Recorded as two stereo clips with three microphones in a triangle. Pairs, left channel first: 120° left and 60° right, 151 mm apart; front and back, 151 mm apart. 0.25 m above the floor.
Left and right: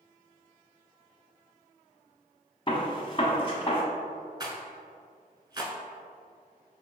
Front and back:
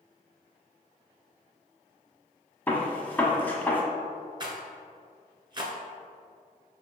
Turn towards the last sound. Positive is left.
turn(degrees=-125)